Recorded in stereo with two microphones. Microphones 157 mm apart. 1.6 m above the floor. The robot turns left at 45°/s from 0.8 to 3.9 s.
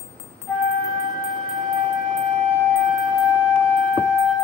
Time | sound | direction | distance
0.5 | a flute | 10° right | 2.5 m